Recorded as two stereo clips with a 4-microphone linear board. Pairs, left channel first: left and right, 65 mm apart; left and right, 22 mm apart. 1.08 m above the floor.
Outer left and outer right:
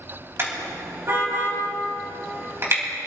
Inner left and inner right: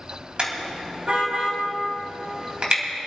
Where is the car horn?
40° right (ahead or behind), 3.5 m.